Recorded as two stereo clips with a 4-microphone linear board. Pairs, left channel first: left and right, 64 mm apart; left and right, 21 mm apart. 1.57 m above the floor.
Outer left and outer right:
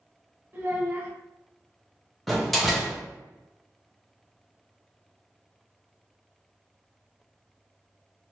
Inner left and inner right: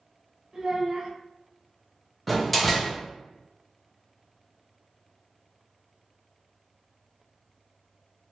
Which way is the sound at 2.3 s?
Centre (ahead or behind).